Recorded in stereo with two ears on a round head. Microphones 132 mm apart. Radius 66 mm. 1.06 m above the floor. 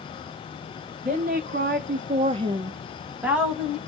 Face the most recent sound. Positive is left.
turn(degrees=-5)  # may be behind; listen again after turning